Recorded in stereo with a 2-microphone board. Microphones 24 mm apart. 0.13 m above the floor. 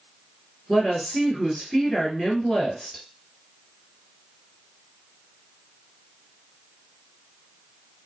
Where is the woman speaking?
25° left (ahead or behind), 1.6 m.